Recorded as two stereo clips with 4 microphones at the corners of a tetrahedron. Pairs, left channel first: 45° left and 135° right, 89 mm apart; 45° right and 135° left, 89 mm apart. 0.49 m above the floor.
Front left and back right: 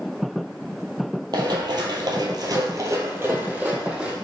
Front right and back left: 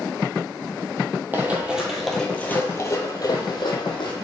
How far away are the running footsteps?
About 1.0 m.